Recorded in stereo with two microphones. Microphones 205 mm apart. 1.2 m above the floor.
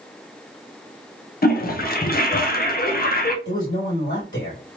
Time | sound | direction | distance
1.4 | a toilet flushing | 50° left (ahead or behind) | 0.7 m
3.5 | a man speaking | 65° left (ahead or behind) | 2 m